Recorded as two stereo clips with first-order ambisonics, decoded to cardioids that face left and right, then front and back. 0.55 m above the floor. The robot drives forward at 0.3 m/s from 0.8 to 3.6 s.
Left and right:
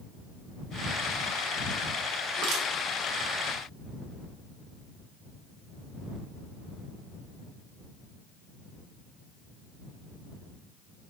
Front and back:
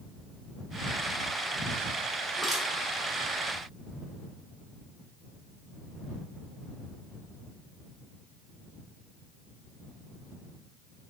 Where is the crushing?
95° right, 1.1 m; by 2.6 s 105° right, 1.1 m.